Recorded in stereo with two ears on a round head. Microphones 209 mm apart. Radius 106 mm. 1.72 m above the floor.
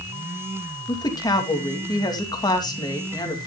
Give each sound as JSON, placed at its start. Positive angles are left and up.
{"t": 0.9, "sound": "a woman speaking", "side_deg": 20, "distance_m": 2.5}